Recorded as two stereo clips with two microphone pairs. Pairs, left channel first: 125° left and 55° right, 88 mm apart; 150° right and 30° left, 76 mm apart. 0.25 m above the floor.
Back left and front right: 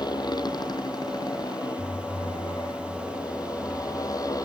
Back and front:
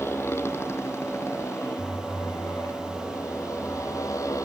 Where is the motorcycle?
155° left; by 4.5 s 170° left.